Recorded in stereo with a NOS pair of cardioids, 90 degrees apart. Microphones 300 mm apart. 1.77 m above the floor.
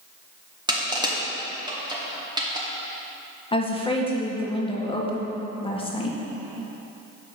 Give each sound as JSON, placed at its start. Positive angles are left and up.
{"t": 0.7, "sound": "crushing", "azimuth_deg": -15, "distance_m": 1.6}
{"t": 3.5, "sound": "a woman speaking", "azimuth_deg": 20, "distance_m": 1.6}